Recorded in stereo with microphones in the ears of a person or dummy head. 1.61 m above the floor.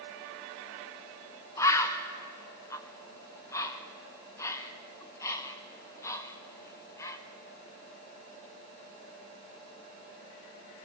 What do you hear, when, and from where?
1.6 s a bird: 15° left (ahead or behind), 1.3 m